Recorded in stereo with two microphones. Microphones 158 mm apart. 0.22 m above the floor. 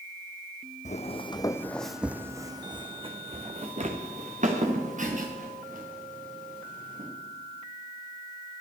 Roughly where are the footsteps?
Left.